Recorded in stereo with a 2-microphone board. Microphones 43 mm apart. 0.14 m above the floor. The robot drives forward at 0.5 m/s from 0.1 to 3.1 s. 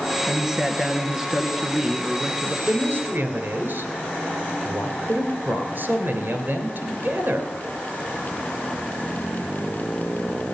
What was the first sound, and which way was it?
A man speaking, 10° right (ahead or behind).